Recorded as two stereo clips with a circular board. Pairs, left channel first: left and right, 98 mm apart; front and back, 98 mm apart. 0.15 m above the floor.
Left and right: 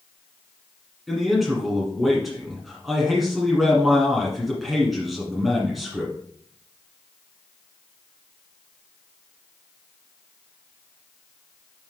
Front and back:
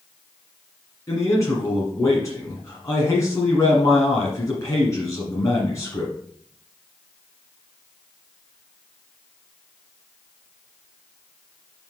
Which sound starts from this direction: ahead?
A man speaking, at 1.1 s.